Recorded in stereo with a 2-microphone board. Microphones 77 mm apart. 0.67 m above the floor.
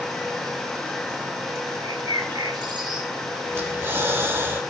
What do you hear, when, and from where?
1.8 s a bird: 75° right (ahead or behind), 3.5 m
3.5 s breathing: 35° right (ahead or behind), 2.5 m